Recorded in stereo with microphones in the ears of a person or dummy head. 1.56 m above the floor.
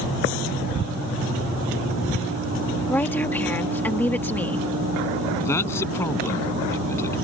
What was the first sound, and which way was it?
A woman speaking, 15° left (ahead or behind).